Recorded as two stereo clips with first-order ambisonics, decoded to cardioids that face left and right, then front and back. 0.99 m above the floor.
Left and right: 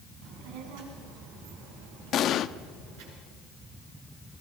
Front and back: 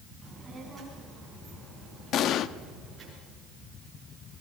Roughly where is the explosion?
Ahead left.